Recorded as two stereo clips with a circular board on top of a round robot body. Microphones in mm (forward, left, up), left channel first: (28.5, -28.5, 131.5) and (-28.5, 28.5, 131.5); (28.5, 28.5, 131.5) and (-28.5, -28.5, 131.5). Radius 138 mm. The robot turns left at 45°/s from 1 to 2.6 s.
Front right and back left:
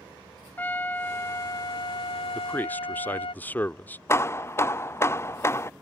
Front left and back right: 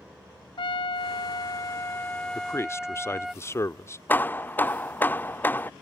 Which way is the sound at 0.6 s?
25° left.